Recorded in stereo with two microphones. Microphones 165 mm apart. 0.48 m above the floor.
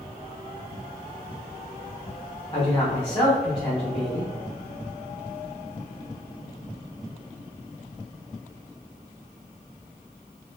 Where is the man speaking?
35° left (ahead or behind), 1.1 m.